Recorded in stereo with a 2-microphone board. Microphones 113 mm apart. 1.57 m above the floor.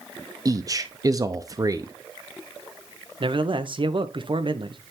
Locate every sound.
0.5 s a man speaking: 30° right (ahead or behind), 0.5 m
3.2 s a man speaking: 45° right (ahead or behind), 0.8 m